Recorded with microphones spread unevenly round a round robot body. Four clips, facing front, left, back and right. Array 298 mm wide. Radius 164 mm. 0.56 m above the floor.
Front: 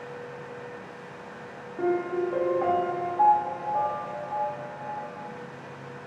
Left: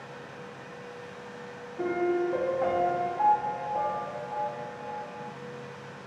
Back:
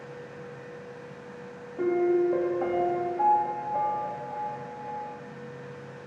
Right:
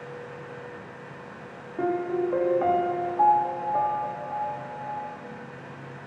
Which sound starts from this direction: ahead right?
A piano, at 1.8 s.